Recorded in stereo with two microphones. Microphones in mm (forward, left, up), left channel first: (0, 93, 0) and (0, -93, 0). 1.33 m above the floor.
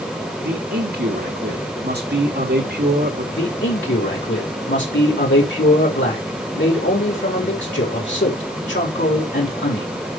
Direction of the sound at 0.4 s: 60° right (ahead or behind).